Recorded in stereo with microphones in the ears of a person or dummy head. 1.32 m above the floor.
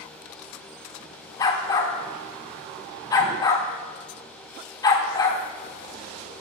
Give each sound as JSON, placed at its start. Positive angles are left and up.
{"t": 1.4, "sound": "a dog barking", "side_deg": 25, "distance_m": 1.2}